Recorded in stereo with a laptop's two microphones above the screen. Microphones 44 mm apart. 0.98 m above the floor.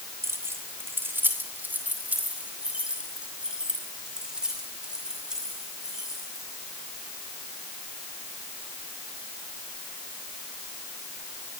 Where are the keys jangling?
80° right, 2 m; by 6.4 s 10° right (ahead or behind), 8 m.